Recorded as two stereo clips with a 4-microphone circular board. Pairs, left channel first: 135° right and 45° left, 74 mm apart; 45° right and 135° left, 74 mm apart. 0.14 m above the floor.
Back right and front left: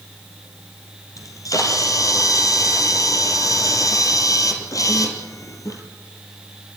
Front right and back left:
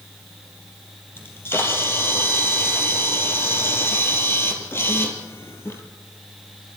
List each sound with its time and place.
1.2 s a camera shutter: 100° right, 3 m